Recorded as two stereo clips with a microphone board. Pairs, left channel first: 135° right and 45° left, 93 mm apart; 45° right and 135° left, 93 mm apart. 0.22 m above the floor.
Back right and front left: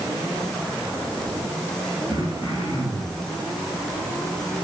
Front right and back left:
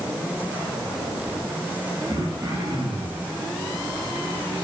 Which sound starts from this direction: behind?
Throat clearing, at 2.1 s.